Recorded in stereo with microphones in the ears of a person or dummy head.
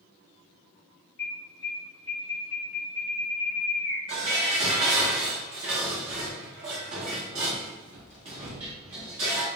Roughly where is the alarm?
Left.